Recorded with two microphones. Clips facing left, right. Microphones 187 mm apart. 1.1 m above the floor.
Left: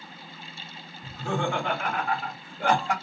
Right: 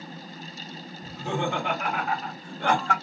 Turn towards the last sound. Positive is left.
turn(degrees=15)  # may be behind; listen again after turning